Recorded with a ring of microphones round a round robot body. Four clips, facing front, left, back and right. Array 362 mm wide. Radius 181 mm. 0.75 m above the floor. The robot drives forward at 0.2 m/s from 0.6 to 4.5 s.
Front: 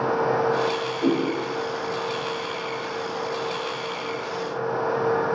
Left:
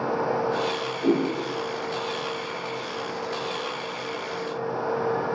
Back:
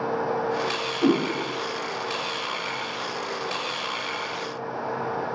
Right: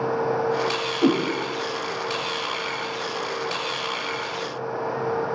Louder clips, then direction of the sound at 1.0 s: Right 2 dB, back 1 dB; 105° right.